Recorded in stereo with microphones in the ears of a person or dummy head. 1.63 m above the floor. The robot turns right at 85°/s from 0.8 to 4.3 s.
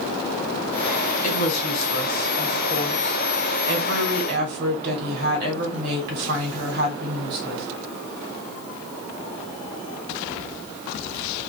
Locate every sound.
1.2 s a woman speaking: 40° left, 1.2 m; by 7.7 s 60° right, 1.2 m